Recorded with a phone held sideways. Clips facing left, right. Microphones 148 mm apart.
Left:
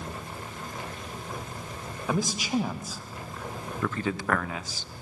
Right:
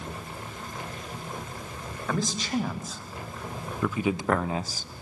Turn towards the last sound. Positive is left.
turn(degrees=-50)  # may be behind; listen again after turning